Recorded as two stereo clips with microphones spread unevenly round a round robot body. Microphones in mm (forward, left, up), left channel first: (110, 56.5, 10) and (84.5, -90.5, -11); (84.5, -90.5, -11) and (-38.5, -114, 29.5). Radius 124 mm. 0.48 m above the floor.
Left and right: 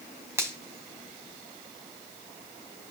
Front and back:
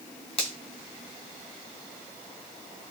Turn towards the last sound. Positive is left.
turn(degrees=-25)